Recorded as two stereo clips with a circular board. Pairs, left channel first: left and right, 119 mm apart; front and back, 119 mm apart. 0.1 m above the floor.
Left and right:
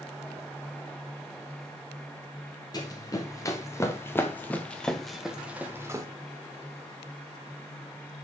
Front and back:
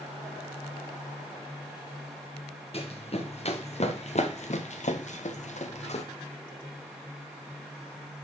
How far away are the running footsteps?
About 2.5 m.